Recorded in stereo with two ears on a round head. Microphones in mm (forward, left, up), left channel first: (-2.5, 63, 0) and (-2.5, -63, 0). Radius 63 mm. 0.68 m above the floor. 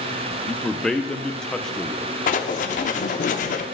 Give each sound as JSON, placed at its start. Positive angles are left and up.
{"t": 0.5, "sound": "a man speaking", "side_deg": 5, "distance_m": 0.5}
{"t": 2.3, "sound": "writing", "side_deg": 60, "distance_m": 0.8}